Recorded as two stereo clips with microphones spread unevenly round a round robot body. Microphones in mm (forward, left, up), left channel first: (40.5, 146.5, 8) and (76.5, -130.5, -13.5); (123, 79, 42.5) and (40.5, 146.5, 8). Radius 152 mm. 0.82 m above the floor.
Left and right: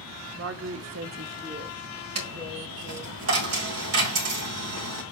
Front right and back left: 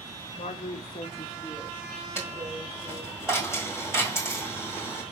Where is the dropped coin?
130° right, 1.4 m.